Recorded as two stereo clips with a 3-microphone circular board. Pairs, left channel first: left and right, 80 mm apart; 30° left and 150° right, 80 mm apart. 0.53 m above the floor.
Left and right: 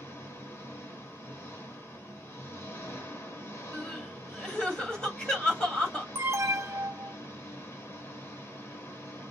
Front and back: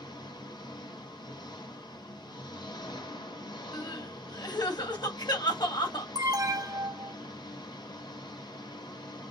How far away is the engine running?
About 1.6 m.